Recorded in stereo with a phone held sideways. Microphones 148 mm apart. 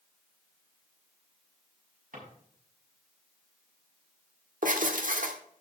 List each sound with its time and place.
2.1 s a drawer: 65° right (ahead or behind), 6 m
4.6 s writing: 65° right (ahead or behind), 1.4 m